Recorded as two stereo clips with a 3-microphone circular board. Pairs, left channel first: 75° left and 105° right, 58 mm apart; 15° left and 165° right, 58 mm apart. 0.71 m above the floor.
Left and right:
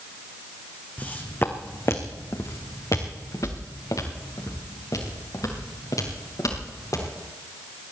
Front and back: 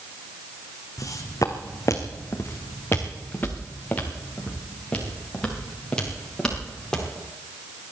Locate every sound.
1.0 s footsteps: 15° left, 1.7 m; by 7.0 s 90° left, 6 m